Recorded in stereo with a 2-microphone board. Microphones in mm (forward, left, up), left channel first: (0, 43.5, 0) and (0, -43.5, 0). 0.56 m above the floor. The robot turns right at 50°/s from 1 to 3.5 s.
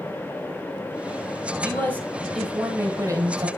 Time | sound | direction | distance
1.6 | a man speaking | 145° left | 2 m